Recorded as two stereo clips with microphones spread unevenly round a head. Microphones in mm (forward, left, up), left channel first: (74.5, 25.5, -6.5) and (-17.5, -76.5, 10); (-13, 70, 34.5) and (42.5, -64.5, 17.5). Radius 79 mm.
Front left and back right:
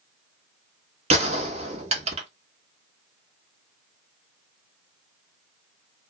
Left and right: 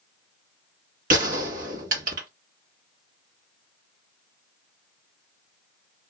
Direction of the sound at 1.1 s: 105° right.